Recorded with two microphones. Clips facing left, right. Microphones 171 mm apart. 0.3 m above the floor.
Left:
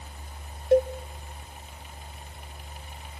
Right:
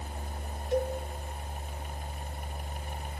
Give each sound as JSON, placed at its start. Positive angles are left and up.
{"t": 0.7, "sound": "a cowbell", "side_deg": 60, "distance_m": 1.1}